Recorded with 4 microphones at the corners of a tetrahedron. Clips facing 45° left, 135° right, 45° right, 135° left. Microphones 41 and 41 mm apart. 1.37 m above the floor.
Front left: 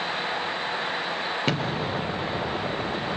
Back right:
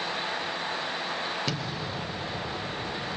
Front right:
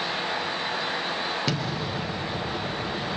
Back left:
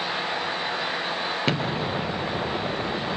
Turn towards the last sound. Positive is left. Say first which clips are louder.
# front left 6 dB, back left 3 dB
turn(degrees=85)